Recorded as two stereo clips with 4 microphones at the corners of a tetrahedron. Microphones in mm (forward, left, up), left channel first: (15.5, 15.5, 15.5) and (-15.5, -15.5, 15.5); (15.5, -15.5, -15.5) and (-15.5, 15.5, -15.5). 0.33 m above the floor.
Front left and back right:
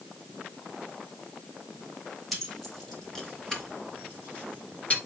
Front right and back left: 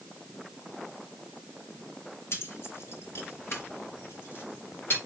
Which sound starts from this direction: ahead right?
Keys jangling, at 2.3 s.